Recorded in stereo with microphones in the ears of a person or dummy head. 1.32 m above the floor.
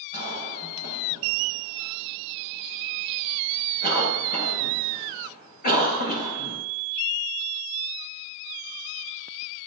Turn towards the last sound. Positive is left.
turn(degrees=40)  # may be behind; listen again after turning